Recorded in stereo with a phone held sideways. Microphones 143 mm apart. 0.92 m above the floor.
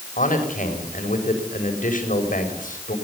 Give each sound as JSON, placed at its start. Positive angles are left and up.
{"t": 0.2, "sound": "a man speaking", "side_deg": 65, "distance_m": 5.5}